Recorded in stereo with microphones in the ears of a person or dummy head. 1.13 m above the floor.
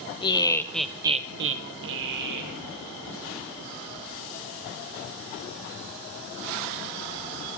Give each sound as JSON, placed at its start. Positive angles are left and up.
{"t": 0.2, "sound": "laughter", "side_deg": 25, "distance_m": 1.2}